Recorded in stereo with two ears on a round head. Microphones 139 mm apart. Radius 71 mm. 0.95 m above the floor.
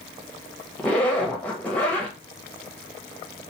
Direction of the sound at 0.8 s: 10° left (ahead or behind).